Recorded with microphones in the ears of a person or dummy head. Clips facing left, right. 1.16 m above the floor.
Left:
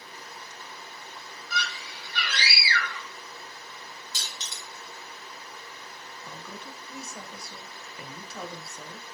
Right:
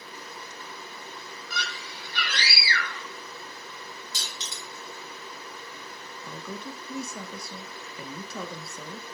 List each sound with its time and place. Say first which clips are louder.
1.5 s a scream: left 2 dB; 40° right (ahead or behind), 1.8 m
4.1 s crushing: right 3 dB; 45° right (ahead or behind), 2.5 m
6.2 s a woman speaking: right 6 dB; 80° right, 0.7 m